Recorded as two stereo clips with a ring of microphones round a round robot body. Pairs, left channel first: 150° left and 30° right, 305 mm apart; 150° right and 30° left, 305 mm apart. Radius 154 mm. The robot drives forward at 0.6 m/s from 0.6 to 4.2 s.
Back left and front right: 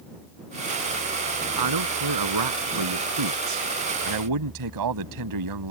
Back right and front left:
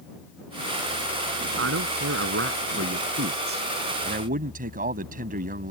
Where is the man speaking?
20° right; by 5.7 s 30° right.